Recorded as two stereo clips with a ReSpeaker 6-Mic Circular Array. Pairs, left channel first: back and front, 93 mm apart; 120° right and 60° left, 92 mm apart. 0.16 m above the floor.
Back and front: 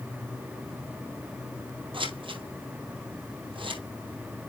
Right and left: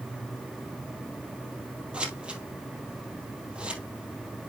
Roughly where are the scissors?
Ahead.